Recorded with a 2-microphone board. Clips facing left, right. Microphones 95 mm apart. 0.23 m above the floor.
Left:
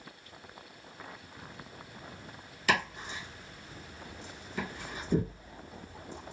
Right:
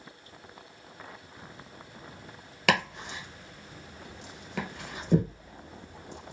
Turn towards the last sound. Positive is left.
turn(degrees=-80)